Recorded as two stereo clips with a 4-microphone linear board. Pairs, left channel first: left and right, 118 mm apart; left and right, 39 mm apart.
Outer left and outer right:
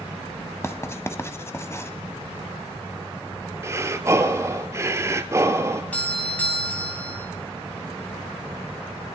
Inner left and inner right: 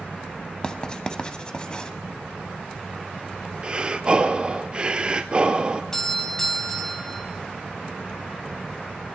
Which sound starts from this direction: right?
Breathing, at 3.6 s.